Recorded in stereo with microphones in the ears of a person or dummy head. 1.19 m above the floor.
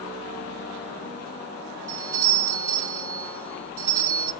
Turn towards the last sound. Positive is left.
turn(degrees=-15)  # may be behind; listen again after turning